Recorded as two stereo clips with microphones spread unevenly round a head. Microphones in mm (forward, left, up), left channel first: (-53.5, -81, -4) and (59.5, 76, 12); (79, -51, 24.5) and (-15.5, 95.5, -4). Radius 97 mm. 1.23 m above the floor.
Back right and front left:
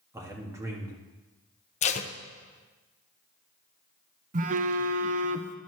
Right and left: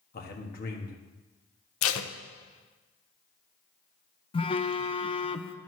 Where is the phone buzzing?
5° left, 0.6 m.